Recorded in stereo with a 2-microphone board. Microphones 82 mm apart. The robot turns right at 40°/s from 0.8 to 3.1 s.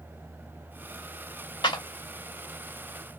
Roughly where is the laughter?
No laughter in this recording.